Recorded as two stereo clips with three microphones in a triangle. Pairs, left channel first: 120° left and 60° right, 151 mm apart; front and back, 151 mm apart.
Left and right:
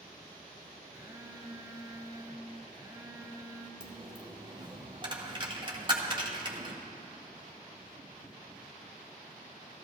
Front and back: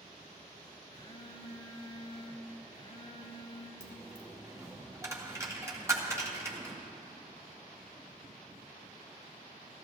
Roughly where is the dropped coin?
Behind right.